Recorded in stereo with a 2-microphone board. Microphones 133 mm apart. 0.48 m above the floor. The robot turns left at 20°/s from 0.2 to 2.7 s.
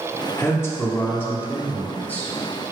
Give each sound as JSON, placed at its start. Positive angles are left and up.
{"t": 0.4, "sound": "a man speaking", "side_deg": 20, "distance_m": 0.7}